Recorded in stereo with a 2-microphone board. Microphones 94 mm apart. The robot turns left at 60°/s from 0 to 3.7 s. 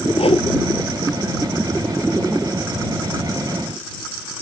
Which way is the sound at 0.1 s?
85° left.